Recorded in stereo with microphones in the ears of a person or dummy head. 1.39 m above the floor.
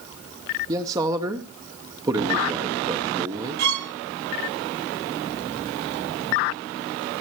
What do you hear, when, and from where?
0.7 s a man speaking: 20° right (ahead or behind), 0.9 m
3.6 s a violin: 55° right (ahead or behind), 1.0 m